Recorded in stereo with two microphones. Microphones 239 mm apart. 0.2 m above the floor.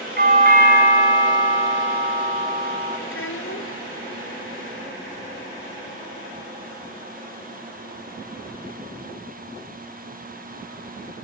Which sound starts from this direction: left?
A child speaking, at 3.1 s.